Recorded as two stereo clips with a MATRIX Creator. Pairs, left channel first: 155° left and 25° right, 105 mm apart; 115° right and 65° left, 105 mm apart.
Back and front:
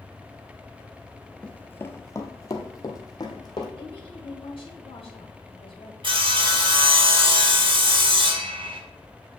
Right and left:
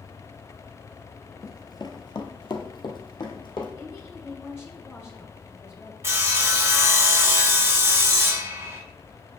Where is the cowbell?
No cowbell in this recording.